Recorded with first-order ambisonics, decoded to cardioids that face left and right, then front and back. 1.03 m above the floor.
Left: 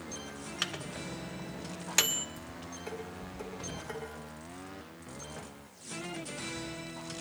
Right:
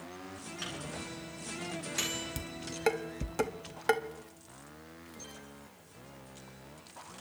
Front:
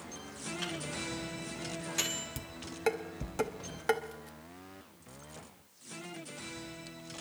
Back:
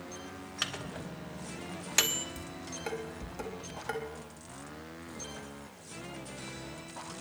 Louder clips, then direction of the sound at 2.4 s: Right 3 dB, back 2 dB; 65° right.